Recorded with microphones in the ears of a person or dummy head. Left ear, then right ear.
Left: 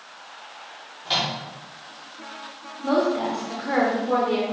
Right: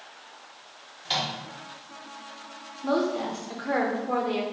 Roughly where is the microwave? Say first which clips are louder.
Left 4 dB; centre.